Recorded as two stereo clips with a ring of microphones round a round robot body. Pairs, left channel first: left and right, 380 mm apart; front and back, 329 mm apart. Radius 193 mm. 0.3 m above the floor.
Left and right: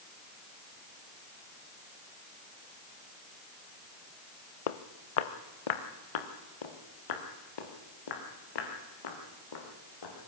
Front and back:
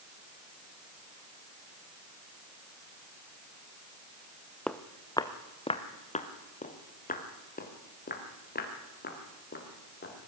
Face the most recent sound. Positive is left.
turn(degrees=60)